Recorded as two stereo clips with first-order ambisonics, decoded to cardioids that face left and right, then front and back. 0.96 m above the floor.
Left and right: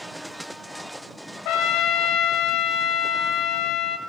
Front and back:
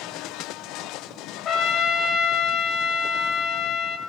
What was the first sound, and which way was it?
A trumpet, 55° left.